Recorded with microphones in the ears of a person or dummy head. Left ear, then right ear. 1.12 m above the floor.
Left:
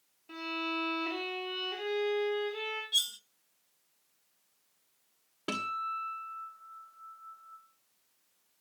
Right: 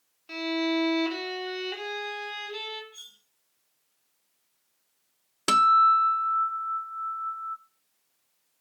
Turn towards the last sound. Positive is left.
turn(degrees=-65)  # may be behind; listen again after turning